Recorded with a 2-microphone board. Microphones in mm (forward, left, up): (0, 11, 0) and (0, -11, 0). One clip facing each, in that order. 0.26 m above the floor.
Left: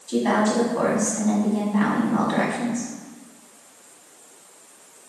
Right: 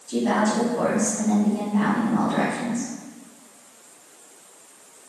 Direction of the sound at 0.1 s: 50° left (ahead or behind).